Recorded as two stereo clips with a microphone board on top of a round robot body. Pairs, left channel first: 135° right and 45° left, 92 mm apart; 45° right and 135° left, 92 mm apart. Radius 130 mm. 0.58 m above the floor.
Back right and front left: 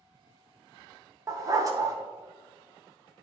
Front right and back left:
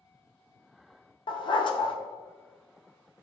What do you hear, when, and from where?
1.3 s a dog barking: 10° right, 0.7 m